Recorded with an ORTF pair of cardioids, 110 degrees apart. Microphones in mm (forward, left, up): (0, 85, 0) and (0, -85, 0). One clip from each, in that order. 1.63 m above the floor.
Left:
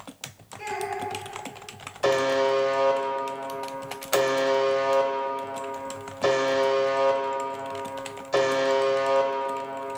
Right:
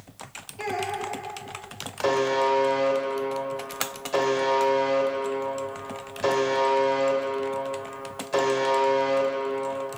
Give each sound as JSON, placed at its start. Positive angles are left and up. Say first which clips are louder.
{"t": 0.6, "sound": "a child speaking", "louder": "right 1 dB", "azimuth_deg": -65, "distance_m": 2.5}
{"t": 2.0, "sound": "a buzzer", "louder": "left 1 dB", "azimuth_deg": 10, "distance_m": 1.1}